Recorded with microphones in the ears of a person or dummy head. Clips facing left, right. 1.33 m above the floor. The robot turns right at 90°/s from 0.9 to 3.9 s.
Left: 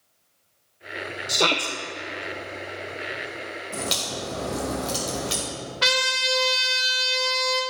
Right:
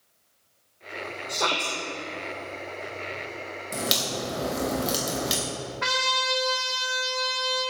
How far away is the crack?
About 2.5 m.